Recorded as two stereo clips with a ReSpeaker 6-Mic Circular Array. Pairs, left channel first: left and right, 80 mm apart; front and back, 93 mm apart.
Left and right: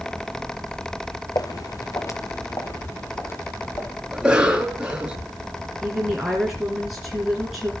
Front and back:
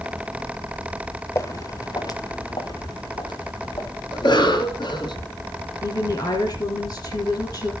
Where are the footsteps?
55° left, 1.2 m; by 3.9 s 30° left, 3 m.